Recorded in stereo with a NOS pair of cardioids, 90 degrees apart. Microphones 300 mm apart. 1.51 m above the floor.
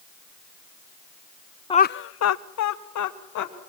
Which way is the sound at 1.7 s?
15° left.